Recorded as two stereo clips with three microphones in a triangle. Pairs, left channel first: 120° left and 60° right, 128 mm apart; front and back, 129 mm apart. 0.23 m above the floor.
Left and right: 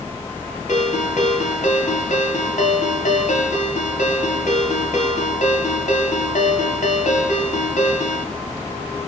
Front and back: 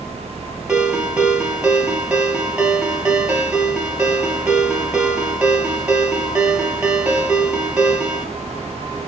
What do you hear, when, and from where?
0.7 s a ringtone: 100° left, 3 m